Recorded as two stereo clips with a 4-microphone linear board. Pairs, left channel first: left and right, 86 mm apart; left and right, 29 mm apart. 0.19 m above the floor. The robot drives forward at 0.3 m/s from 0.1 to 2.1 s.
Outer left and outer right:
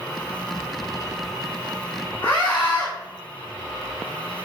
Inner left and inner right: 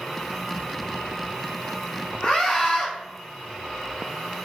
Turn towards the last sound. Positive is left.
turn(degrees=20)  # may be behind; listen again after turning